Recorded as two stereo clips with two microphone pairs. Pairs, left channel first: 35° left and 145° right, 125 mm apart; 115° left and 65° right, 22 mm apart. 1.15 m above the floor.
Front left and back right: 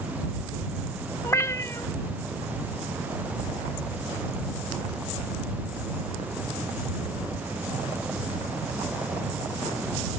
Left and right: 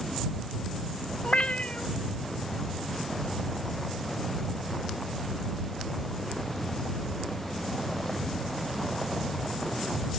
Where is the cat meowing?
100° left.